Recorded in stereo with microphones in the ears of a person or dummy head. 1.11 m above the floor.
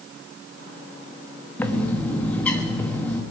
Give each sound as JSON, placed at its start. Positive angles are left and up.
{"t": 1.6, "sound": "a bird", "side_deg": 5, "distance_m": 1.0}